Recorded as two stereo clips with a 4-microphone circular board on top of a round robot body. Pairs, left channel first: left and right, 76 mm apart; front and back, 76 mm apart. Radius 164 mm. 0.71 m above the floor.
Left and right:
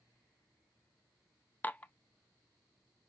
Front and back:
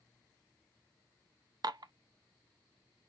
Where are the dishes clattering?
155° left, 0.6 m.